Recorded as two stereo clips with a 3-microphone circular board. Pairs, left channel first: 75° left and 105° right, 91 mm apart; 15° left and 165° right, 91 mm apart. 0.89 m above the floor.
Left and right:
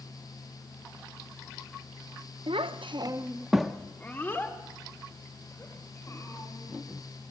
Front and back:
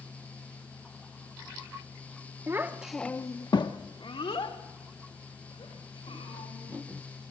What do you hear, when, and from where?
2.5 s a child speaking: 105° right, 1.0 m; by 7.3 s 25° left, 5 m